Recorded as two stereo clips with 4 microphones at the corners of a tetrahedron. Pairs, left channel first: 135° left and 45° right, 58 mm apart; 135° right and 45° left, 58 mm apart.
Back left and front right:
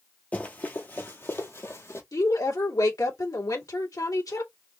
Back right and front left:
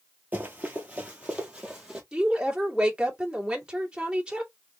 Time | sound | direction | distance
0.3 | running footsteps | 85° left | 1.4 m
2.1 | a woman speaking | 120° left | 2.0 m